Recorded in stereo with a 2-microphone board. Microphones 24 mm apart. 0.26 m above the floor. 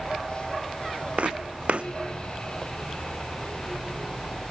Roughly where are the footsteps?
Right.